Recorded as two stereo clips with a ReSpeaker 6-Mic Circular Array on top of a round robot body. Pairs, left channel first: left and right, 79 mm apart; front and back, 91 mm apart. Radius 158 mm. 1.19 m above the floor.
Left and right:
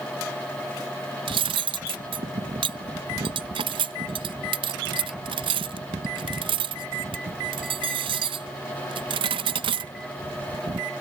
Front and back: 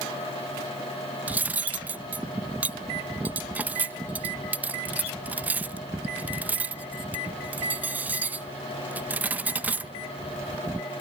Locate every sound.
1.3 s cutlery clinking: 105° right